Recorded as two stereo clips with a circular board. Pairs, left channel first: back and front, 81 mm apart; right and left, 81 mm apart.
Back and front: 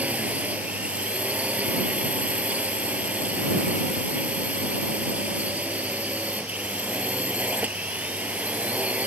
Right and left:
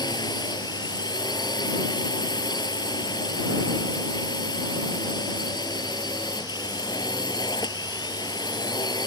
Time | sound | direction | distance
0.0 | a drone | 70° right | ?